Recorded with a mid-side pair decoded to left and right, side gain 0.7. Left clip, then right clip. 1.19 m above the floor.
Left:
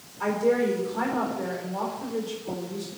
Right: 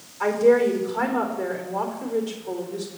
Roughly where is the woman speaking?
Ahead right.